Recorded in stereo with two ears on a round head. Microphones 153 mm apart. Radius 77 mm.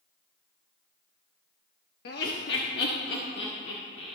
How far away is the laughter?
About 1.1 m.